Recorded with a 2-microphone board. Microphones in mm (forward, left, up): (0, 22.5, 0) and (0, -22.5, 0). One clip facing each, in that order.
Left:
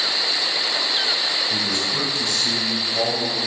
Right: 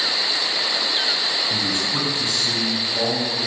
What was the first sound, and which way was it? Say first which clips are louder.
A man speaking: even; 25° right (ahead or behind).